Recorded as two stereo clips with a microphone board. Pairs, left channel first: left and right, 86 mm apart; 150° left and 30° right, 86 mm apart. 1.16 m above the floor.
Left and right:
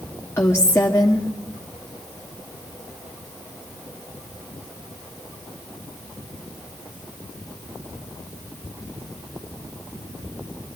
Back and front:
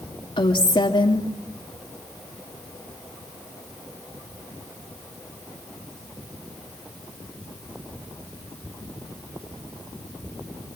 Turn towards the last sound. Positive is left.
turn(degrees=155)